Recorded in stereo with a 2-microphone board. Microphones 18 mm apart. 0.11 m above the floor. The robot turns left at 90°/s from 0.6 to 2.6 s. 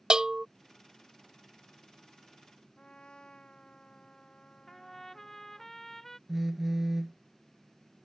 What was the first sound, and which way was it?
A bell, 40° right (ahead or behind).